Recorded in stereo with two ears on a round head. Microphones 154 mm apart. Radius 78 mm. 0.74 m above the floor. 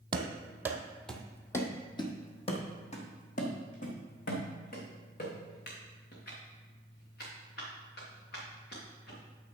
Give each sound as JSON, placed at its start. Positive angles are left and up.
{"t": 0.1, "sound": "running footsteps", "side_deg": -25, "distance_m": 1.1}